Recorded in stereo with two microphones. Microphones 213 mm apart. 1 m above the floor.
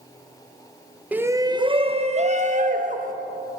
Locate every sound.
1.1 s a shout: 5° right (ahead or behind), 0.6 m; by 3.1 s 40° right (ahead or behind), 1.6 m